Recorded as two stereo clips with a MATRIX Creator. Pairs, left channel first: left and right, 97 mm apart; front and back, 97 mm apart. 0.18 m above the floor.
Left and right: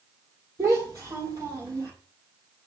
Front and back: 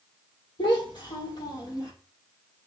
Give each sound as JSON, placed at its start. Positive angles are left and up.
{"t": 0.6, "sound": "a child speaking", "azimuth_deg": -35, "distance_m": 4.5}